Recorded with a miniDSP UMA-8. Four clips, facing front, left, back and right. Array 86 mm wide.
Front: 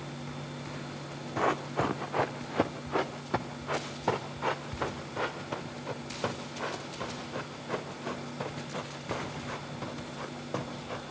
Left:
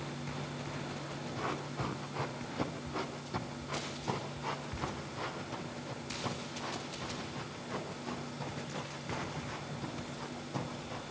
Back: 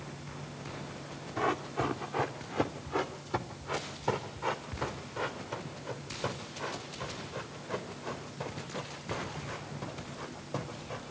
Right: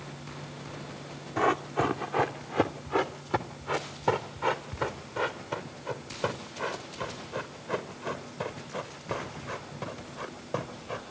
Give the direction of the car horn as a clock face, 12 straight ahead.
I don't hear a car horn.